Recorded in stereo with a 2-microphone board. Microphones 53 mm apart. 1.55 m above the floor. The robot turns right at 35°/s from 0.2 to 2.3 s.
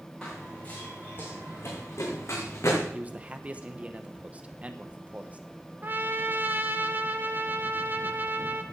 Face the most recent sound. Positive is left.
turn(degrees=-35)  # may be behind; listen again after turning